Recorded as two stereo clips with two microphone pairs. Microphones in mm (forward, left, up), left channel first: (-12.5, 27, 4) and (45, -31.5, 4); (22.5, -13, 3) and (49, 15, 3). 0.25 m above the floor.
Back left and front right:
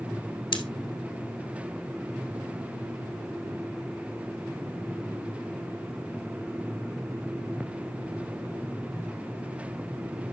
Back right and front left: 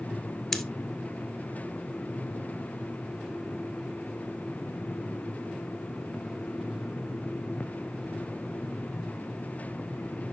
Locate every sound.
0.5 s scissors: 140° left, 1.3 m